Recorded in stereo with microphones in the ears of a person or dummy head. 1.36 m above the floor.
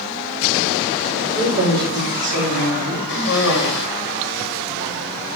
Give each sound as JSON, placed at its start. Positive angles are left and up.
{"t": 1.4, "sound": "a man speaking", "side_deg": -85, "distance_m": 3.0}
{"t": 3.1, "sound": "a cough", "side_deg": 65, "distance_m": 1.9}